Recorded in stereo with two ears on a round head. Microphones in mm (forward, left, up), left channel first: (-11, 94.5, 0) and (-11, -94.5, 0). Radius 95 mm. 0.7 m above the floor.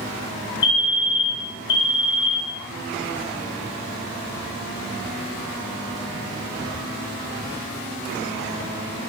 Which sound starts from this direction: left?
A fire alarm, at 0.6 s.